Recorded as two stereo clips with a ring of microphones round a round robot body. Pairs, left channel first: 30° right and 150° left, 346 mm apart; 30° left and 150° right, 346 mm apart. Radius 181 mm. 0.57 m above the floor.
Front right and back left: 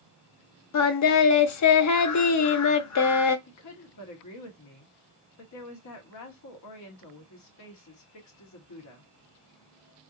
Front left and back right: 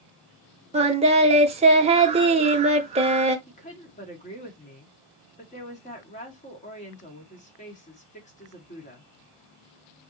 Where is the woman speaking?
35° right, 1.7 m.